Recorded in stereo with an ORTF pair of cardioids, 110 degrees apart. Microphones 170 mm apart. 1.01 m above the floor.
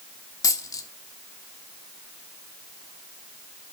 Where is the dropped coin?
20° left, 1.2 m.